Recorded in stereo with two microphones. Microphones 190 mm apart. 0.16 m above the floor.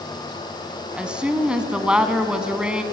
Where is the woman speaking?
5° right (ahead or behind), 1.3 m.